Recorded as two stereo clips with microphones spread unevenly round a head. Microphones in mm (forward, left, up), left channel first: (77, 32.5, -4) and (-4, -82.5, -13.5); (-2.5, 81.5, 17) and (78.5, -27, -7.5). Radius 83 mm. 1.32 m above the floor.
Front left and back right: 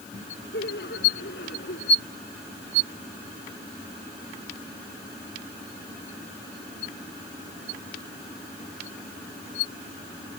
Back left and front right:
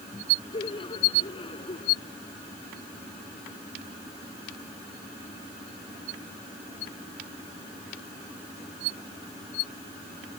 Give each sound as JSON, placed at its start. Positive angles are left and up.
{"t": 0.5, "sound": "laughter", "azimuth_deg": 75}